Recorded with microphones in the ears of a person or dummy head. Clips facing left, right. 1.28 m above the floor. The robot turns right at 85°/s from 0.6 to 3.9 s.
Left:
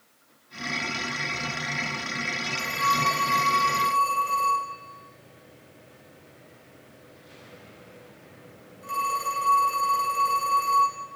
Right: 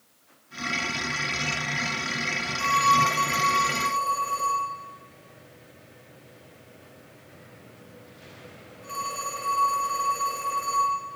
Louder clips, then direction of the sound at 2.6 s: Right 5 dB; 20° right (ahead or behind).